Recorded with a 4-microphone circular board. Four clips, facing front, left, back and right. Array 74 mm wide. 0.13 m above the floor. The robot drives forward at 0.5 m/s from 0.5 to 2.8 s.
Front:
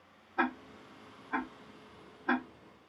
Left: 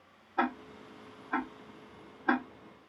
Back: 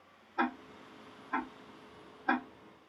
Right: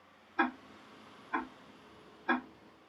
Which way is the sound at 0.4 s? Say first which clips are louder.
Left 1 dB, front 1 dB; 80° left.